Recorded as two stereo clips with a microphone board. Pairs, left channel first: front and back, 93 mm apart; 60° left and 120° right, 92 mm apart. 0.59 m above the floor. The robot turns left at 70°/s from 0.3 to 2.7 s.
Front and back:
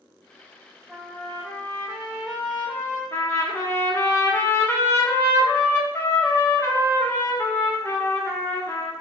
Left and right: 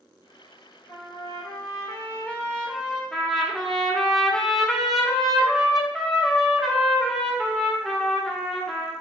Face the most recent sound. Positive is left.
turn(degrees=-20)